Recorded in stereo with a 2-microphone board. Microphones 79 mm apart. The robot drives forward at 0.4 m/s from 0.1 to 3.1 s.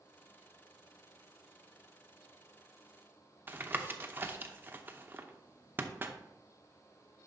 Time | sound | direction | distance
3.5 | tapping | 25° right (ahead or behind) | 0.6 m